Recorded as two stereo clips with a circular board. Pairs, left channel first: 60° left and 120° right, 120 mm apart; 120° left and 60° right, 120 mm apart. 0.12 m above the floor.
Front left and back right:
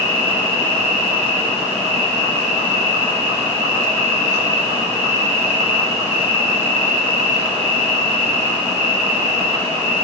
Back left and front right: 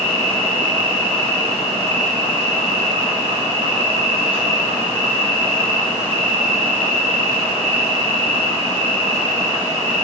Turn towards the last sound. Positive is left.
turn(degrees=-100)